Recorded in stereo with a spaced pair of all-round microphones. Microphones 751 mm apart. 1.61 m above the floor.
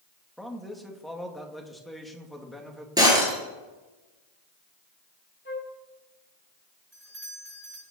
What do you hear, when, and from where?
0.4 s a man speaking: centre (ahead or behind), 2.5 m
3.0 s breaking glass: 5° right (ahead or behind), 7 m
5.5 s a flute: 15° left (ahead or behind), 1.6 m
6.9 s a doorbell: 60° right (ahead or behind), 7.5 m